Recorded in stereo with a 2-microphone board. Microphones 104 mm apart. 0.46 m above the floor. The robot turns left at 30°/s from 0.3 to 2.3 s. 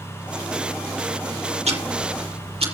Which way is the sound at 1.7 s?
85° right.